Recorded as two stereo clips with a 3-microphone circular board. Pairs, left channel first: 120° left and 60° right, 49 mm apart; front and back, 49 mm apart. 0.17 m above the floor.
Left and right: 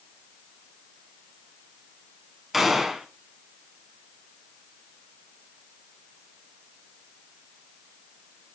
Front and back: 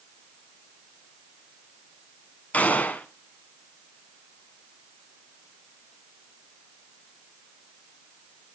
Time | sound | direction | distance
2.5 | a gunshot | 25° left | 0.6 m